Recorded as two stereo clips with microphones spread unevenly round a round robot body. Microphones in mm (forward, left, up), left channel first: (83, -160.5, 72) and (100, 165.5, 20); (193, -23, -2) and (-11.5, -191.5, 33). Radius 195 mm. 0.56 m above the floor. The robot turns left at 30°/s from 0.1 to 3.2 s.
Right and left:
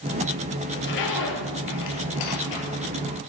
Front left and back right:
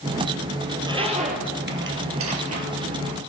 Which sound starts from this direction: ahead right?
A zipper, at 0.7 s.